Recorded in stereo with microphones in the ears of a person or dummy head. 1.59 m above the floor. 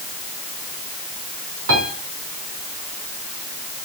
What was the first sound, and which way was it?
A piano, 75° right (ahead or behind).